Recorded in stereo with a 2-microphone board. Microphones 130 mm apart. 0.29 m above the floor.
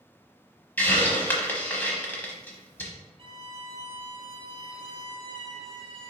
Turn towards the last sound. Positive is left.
turn(degrees=-45)  # may be behind; listen again after turning